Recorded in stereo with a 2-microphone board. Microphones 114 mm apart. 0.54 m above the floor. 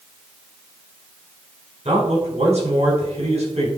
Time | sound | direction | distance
1.9 | a man speaking | 75° right (ahead or behind) | 4 m